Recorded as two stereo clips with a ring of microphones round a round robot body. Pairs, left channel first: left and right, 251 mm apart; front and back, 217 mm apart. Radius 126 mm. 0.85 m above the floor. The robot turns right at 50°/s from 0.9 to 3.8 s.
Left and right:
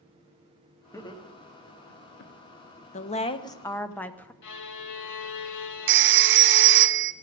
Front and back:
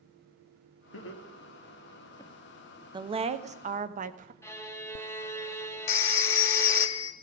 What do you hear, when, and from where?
0.9 s laughter: 10° left, 2 m; by 2.3 s 80° left, 2 m
2.9 s a woman speaking: 125° left, 1.0 m; by 4.3 s 170° left, 1.0 m
4.4 s a violin: 75° left, 1.4 m
5.9 s a phone ringing: 45° right, 0.5 m